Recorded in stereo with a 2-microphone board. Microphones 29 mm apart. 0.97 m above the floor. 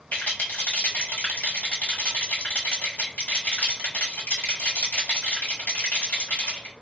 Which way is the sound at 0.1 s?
70° left (ahead or behind).